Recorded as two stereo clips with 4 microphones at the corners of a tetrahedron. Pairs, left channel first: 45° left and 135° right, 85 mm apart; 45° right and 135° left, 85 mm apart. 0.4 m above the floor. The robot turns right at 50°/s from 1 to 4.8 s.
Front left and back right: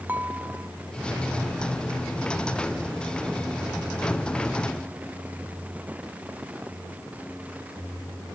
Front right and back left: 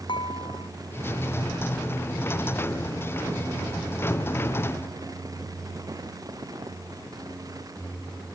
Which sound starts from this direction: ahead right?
Dishes clattering, at 0.1 s.